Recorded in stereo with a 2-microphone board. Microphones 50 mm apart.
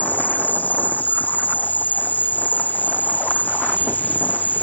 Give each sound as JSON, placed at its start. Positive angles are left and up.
{"t": 0.0, "sound": "an insect", "side_deg": 35}